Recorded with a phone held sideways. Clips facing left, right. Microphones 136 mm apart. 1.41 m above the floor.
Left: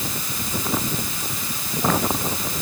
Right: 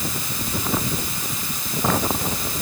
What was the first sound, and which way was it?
Only background noise.